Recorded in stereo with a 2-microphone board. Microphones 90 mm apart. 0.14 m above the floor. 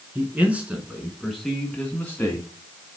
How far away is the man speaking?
About 2 m.